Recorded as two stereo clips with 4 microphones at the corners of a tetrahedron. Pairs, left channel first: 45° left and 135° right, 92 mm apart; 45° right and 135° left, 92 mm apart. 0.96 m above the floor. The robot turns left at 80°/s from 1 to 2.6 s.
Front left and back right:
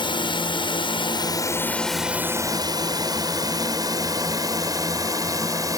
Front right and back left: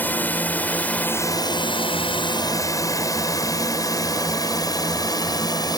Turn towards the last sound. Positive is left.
turn(degrees=-85)